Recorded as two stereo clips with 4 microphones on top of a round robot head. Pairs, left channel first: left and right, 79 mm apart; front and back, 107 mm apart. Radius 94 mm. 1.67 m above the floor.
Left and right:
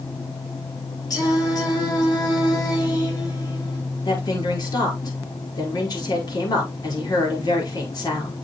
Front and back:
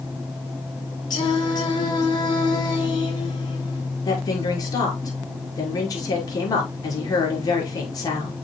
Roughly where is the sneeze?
No sneeze in this recording.